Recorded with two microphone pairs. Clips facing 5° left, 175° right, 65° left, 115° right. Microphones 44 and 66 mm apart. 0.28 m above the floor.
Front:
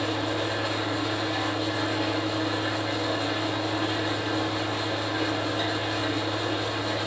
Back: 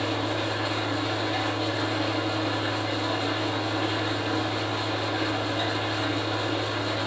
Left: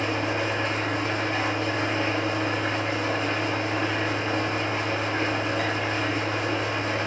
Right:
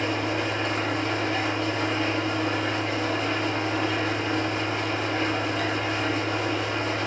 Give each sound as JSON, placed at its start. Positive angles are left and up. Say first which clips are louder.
{"t": 0.0, "sound": "an engine running", "louder": "even, even", "azimuth_deg": 105, "distance_m": 0.8}